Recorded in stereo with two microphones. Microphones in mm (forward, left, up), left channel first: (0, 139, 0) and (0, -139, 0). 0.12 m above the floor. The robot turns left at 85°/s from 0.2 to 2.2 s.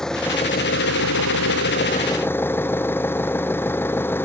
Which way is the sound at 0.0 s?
Straight behind.